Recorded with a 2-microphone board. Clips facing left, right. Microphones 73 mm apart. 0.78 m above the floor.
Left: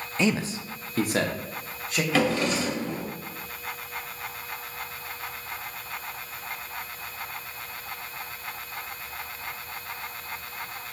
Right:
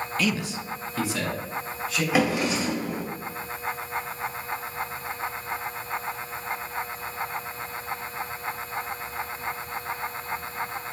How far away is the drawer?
About 1.9 m.